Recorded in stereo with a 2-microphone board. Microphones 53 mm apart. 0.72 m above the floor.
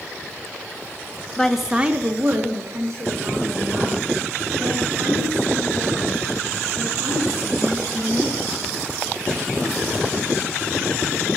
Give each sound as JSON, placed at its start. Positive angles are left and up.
{"t": 1.4, "sound": "a woman speaking", "side_deg": 15, "distance_m": 0.8}